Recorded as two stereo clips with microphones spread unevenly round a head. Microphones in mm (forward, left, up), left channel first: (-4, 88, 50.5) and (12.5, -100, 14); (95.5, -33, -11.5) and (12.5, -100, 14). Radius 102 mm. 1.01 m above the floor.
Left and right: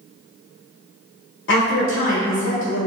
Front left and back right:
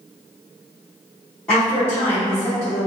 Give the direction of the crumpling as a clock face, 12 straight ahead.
I don't hear crumpling.